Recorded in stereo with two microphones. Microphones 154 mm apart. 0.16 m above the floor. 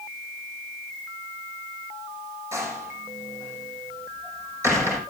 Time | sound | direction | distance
2.5 | a door slam | 20° right (ahead or behind) | 5.5 m